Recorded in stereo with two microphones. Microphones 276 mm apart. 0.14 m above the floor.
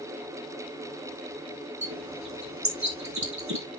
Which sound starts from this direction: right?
A bird, at 1.8 s.